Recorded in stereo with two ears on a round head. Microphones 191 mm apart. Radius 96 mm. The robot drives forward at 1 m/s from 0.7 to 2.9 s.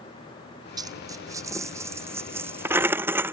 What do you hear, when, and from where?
0.8 s a dropped coin: 20° right (ahead or behind); by 3.3 s 10° right (ahead or behind)